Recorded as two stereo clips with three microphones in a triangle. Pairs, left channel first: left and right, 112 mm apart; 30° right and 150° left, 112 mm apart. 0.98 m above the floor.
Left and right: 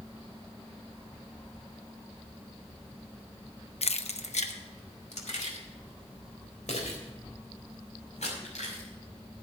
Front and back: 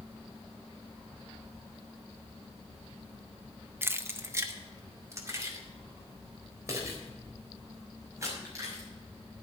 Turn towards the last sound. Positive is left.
turn(degrees=90)